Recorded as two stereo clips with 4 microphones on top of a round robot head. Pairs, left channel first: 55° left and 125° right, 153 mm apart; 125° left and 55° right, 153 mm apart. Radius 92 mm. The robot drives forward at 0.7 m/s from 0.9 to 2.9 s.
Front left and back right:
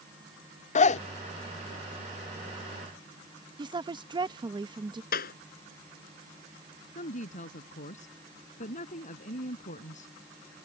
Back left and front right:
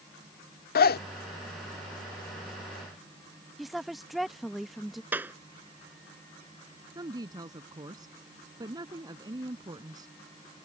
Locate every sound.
0.8 s a zipper: 100° left; by 1.0 s 105° left
3.6 s a woman speaking: 145° right
5.1 s a clap: 25° left
7.0 s a woman speaking: 10° left